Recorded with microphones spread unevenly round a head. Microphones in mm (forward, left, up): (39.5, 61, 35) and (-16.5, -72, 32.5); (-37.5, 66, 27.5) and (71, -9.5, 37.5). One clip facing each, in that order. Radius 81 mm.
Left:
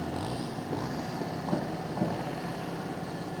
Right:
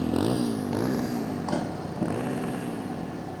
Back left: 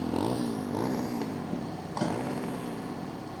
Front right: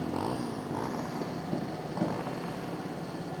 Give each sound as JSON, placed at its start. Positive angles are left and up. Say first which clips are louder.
{"t": 0.0, "sound": "a motorcycle", "louder": "right 9 dB, back left 3 dB", "azimuth_deg": -145}